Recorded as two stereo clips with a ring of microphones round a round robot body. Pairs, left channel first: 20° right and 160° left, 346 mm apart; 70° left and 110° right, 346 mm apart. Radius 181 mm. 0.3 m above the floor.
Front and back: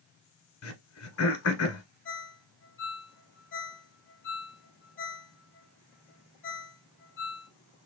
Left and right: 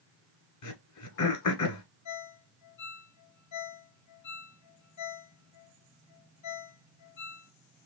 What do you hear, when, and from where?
0.6 s throat clearing: 30° left, 1.2 m
2.0 s a ringtone: 35° left, 1.4 m